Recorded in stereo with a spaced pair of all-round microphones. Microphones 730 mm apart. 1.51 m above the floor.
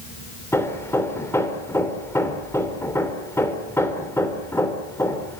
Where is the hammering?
5° left (ahead or behind), 3.5 m.